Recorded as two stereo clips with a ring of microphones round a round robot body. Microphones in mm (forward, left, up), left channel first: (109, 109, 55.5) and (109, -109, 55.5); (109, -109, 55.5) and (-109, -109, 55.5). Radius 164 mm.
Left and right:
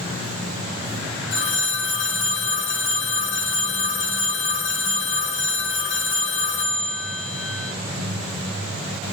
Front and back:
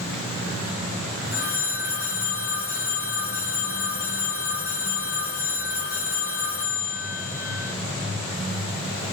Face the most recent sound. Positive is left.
turn(degrees=60)